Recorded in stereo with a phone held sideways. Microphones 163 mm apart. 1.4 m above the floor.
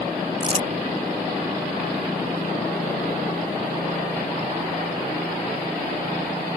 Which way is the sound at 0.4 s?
40° right (ahead or behind).